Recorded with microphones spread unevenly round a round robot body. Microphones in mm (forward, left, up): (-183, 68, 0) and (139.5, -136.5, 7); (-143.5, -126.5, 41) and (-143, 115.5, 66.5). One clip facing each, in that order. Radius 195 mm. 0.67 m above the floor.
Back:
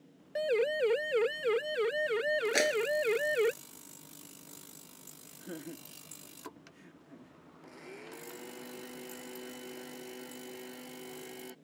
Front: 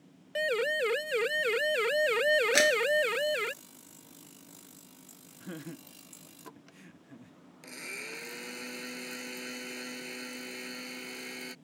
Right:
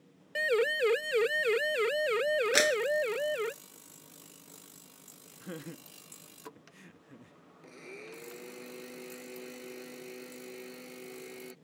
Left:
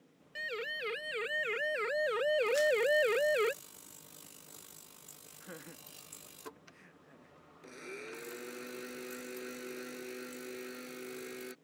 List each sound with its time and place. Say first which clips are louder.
0.3 s a siren: back 2 dB, right 14 dB; 80° right; by 3.5 s 25° left
2.5 s a clap: front 3 dB, right 1 dB; 90° right
5.4 s laughter: front 1 dB, right 8 dB; 80° right
7.6 s a blender: front 1 dB, left 1 dB; 10° left